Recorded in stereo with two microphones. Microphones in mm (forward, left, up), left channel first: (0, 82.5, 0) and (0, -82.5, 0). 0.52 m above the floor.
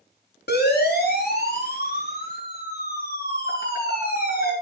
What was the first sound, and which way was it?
A siren, 70° left (ahead or behind).